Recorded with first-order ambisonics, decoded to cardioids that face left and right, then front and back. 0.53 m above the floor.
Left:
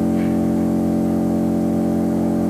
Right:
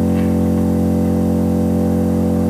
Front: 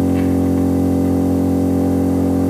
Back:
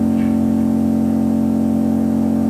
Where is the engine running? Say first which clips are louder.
Right 2 dB, front 1 dB; 40° right, 0.7 m.